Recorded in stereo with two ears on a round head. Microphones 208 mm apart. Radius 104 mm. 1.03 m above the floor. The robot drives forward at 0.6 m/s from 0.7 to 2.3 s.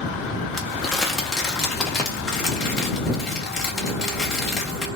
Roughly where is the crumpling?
Centre.